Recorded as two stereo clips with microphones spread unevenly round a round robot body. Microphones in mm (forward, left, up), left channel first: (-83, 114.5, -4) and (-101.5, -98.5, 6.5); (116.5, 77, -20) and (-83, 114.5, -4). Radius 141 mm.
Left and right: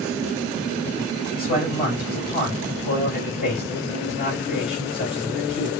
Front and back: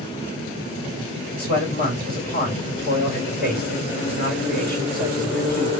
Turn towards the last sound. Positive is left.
turn(degrees=5)